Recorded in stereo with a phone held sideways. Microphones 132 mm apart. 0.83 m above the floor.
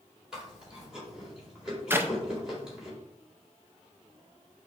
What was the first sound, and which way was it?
Chewing, 5° right (ahead or behind).